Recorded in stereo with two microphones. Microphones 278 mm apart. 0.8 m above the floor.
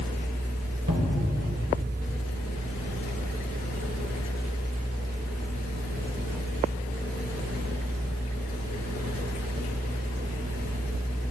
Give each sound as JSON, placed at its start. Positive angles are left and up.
{"t": 0.9, "sound": "a cupboard door", "side_deg": -80, "distance_m": 2.5}